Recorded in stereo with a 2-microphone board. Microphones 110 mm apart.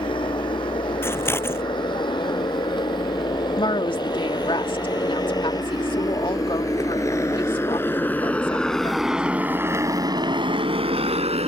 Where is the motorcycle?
50° left (ahead or behind); by 11.5 s 80° right.